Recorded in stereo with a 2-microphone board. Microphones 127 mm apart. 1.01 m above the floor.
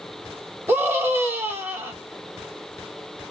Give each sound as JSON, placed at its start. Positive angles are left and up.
{"t": 0.7, "sound": "a scream", "side_deg": -20, "distance_m": 1.5}